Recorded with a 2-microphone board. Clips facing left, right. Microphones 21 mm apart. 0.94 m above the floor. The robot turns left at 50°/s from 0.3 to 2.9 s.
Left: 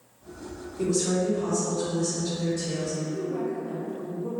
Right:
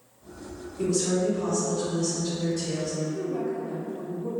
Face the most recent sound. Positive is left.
turn(degrees=-20)  # may be behind; listen again after turning